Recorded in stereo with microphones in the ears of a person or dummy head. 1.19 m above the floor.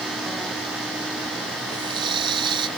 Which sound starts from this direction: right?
A running tap, at 1.7 s.